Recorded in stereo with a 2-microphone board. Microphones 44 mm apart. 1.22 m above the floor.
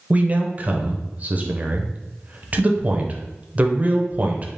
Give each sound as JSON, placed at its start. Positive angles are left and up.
{"t": 0.1, "sound": "a man speaking", "side_deg": -35, "distance_m": 0.7}